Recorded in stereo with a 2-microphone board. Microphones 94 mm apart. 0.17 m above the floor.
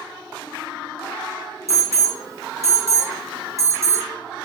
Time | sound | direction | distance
1.7 | an alarm | 35° right (ahead or behind) | 3 m